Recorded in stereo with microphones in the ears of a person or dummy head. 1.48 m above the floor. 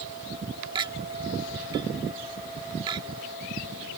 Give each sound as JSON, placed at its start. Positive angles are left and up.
{"t": 0.8, "sound": "a clink", "side_deg": -30}